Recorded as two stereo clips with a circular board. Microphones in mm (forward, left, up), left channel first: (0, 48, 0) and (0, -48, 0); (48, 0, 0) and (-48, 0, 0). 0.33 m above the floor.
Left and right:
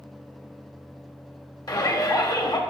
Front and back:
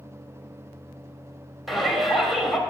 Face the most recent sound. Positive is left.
turn(degrees=90)